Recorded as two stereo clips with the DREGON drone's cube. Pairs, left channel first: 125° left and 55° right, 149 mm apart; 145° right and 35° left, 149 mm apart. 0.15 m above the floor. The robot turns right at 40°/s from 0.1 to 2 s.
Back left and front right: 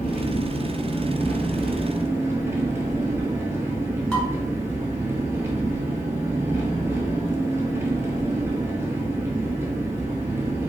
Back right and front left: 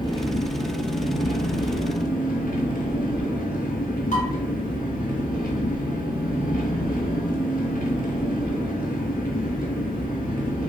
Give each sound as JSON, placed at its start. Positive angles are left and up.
{"t": 0.0, "sound": "an engine running", "azimuth_deg": 155, "distance_m": 0.7}
{"t": 4.1, "sound": "dishes clattering", "azimuth_deg": -150, "distance_m": 1.5}